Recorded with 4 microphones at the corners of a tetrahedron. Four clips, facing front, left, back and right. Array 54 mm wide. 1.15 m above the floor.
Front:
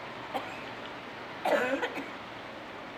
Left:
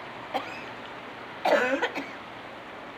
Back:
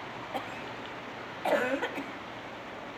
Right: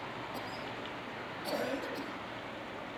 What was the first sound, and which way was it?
A cough, 90° left.